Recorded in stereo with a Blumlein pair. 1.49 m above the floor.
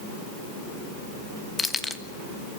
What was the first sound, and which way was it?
Keys jangling, 10° left.